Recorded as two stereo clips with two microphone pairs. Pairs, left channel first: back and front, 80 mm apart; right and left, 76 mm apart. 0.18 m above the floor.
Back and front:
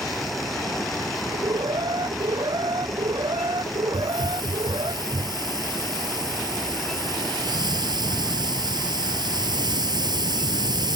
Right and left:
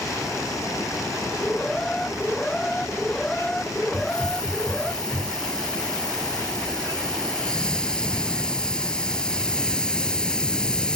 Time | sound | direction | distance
1.3 | an alarm | 10° right | ?
3.9 | a hiss | 15° right | ?